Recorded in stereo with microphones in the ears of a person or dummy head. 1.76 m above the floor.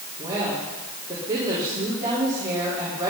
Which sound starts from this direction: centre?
A woman speaking, at 0.2 s.